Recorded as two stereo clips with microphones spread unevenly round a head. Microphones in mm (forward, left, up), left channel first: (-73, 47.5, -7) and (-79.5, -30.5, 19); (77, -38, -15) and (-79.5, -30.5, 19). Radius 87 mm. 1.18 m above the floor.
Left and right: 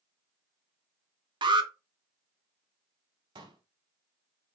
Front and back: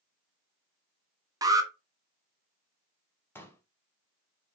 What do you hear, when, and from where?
1.4 s an alarm: 115° right, 1.5 m
3.4 s a pop: 80° right, 2.5 m